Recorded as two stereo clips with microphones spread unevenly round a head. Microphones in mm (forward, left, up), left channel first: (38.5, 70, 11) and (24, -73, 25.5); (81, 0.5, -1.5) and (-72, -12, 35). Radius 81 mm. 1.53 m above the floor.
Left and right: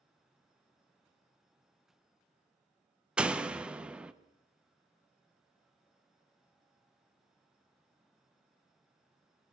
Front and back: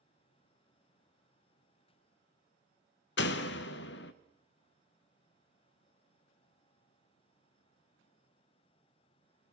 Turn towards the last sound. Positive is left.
turn(degrees=-15)